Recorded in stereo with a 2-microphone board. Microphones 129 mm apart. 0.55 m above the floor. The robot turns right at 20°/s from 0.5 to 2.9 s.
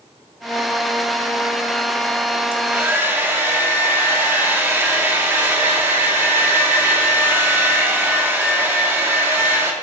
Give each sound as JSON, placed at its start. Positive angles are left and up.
{"t": 2.5, "sound": "a hair dryer", "side_deg": -15, "distance_m": 1.1}